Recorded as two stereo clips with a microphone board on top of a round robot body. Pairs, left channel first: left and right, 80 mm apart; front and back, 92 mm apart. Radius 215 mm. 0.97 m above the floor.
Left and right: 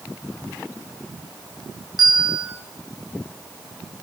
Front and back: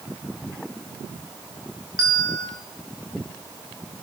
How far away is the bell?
About 0.7 m.